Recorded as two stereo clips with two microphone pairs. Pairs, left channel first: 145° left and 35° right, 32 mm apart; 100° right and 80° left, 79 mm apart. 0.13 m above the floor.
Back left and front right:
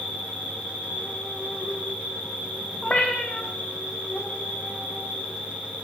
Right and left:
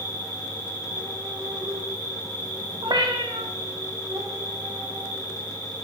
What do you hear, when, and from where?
0.0 s an insect: 105° left, 1.5 m
2.8 s a cat meowing: 95° left, 1.3 m